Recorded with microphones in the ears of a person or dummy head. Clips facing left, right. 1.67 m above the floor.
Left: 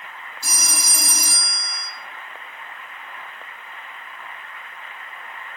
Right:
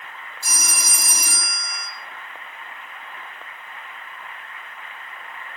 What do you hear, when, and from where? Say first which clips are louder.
0.4 s a phone ringing: left 1 dB; 55° left (ahead or behind), 2.0 m